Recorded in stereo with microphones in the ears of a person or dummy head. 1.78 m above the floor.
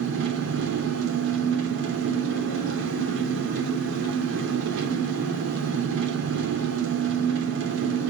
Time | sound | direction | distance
0.0 | an engine running | 75° right (ahead or behind) | 3.5 m